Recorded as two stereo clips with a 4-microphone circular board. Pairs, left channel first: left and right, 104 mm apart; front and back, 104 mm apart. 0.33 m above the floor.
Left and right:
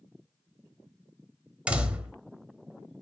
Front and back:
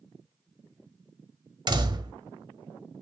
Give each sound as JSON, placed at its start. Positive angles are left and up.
{"t": 1.7, "sound": "a door slam", "azimuth_deg": -165, "distance_m": 0.9}